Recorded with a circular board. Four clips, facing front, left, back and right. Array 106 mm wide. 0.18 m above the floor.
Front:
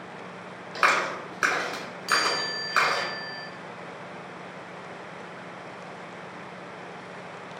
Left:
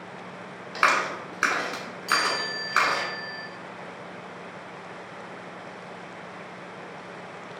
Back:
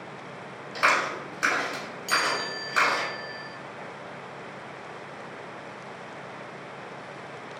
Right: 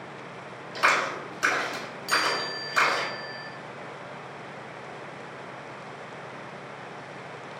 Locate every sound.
0.8 s a clap: 60° left, 1.2 m
2.1 s a chime: 15° right, 0.8 m